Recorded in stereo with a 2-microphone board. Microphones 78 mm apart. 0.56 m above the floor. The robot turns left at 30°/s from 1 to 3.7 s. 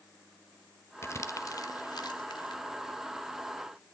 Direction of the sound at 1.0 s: 35° left (ahead or behind).